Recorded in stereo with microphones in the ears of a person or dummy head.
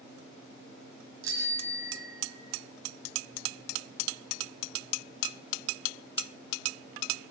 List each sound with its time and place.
1.2 s a bicycle bell: 75° right (ahead or behind), 6 m; by 2.5 s 65° right (ahead or behind), 6 m